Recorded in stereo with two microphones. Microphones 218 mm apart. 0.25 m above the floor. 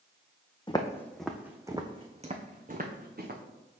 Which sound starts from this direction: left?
Footsteps, at 0.7 s.